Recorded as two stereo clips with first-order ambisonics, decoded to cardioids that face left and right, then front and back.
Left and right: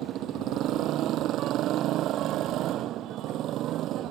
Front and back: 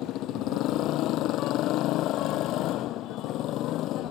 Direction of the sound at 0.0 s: 45° right.